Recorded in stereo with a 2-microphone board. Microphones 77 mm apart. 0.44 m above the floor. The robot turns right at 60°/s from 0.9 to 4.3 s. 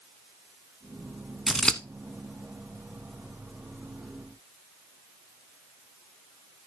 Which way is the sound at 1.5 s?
5° right (ahead or behind).